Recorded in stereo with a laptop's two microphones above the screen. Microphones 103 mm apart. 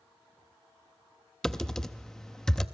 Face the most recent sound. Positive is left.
turn(degrees=5)  # may be behind; listen again after turning